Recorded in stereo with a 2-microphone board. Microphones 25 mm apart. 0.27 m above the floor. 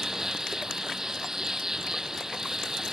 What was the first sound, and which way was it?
An insect, 20° right (ahead or behind).